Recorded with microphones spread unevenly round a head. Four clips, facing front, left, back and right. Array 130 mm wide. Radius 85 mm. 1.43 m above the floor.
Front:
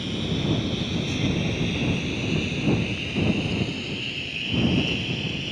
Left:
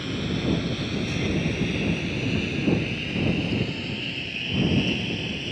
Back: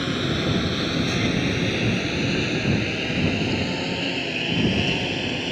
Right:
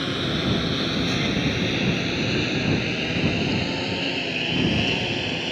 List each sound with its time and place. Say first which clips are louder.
0.0 s a lawn mower: right 2 dB, back 3 dB; 125° right; by 5.5 s 115° right